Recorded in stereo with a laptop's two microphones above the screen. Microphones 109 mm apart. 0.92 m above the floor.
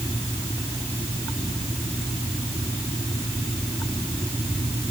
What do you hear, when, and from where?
Only background noise.